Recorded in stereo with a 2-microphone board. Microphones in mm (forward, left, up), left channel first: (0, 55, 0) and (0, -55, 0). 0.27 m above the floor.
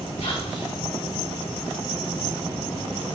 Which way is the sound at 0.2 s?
65° left (ahead or behind).